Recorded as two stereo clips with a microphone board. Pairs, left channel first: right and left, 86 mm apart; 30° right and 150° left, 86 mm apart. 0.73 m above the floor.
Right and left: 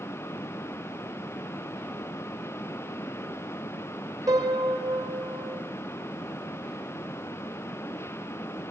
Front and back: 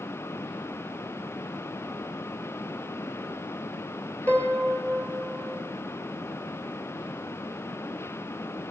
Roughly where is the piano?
Ahead left.